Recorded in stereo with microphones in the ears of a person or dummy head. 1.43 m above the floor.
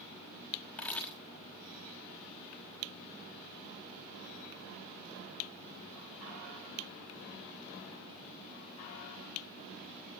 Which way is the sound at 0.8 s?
5° left (ahead or behind).